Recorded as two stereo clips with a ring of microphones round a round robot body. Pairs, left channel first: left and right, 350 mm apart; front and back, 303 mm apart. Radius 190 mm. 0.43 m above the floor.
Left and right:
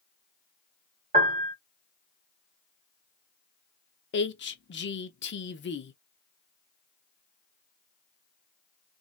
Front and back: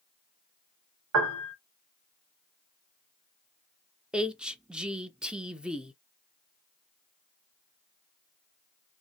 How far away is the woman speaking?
About 0.9 m.